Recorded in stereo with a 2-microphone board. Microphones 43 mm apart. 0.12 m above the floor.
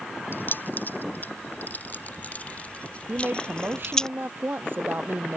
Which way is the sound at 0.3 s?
55° left (ahead or behind).